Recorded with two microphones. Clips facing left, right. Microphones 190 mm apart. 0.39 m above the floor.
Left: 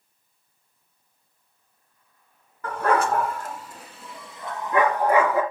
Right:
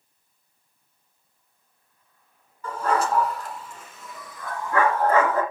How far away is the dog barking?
About 1.9 m.